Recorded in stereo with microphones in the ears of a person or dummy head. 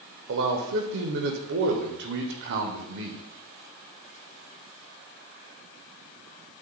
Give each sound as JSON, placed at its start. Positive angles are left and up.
{"t": 0.3, "sound": "a man speaking", "side_deg": -60, "distance_m": 0.7}